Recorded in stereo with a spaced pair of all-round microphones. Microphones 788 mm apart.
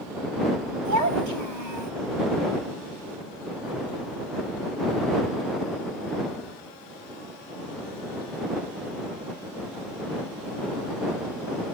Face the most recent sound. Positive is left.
turn(degrees=-70)  # may be behind; listen again after turning